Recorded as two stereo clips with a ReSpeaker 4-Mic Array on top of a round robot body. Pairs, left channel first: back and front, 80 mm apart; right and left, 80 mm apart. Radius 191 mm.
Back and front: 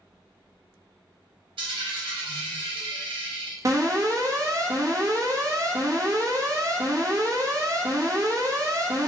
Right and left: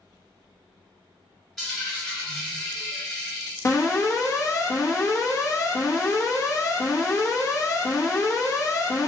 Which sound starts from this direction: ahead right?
An alarm, at 3.6 s.